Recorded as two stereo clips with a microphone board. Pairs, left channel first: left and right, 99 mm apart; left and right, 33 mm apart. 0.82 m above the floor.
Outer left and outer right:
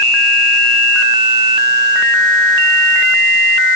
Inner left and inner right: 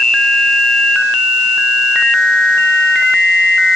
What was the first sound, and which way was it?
Only background noise.